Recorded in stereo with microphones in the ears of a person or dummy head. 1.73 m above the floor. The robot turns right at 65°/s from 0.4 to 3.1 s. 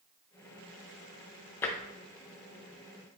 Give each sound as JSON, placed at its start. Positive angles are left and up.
{"t": 1.6, "sound": "tapping", "side_deg": 15, "distance_m": 0.8}